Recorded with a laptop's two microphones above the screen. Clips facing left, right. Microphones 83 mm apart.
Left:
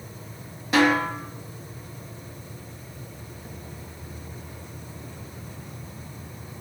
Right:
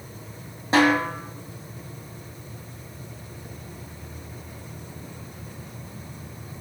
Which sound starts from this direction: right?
A snare drum, at 0.7 s.